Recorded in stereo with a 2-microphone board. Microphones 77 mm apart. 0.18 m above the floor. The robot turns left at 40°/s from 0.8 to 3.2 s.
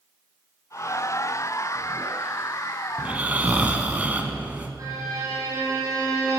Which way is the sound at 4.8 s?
50° right (ahead or behind).